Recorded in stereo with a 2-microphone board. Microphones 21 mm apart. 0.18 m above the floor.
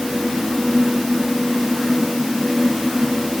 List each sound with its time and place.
Only background noise.